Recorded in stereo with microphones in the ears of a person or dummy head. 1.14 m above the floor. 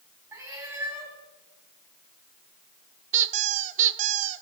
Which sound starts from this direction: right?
A squeak, at 3.1 s.